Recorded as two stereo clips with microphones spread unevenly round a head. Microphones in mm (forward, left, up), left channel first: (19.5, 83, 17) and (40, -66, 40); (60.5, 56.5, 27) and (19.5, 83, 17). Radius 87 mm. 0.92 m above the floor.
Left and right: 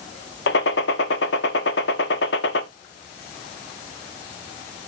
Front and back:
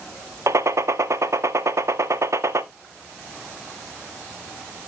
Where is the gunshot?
120° left, 0.8 m.